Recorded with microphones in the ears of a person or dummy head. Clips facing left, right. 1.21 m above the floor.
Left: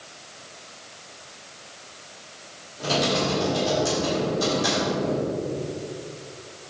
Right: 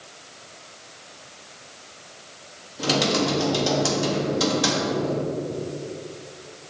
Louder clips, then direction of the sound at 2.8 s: Right 2 dB; 90° right.